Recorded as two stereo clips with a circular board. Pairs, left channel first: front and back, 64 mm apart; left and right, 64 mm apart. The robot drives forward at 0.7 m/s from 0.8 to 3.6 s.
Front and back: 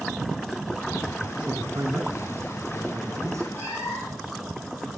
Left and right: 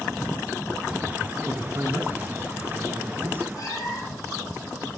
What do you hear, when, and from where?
1.4 s a man speaking: 130° right, 4.5 m; by 3.4 s 140° right, 5.5 m
3.5 s a cat meowing: 60° left, 6 m